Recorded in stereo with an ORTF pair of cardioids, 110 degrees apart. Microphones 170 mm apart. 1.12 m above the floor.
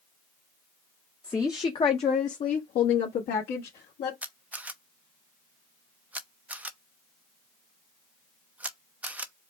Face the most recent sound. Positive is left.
turn(degrees=-10)